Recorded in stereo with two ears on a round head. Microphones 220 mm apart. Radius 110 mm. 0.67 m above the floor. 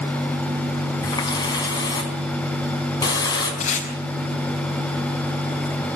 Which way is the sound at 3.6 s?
30° left (ahead or behind).